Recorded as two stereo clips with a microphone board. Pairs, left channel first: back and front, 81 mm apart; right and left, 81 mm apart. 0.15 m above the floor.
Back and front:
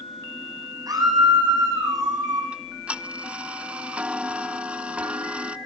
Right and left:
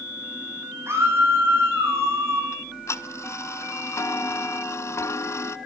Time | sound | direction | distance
0.9 | a scream | 30° left | 10 m
2.5 | ticking | 65° right | 0.7 m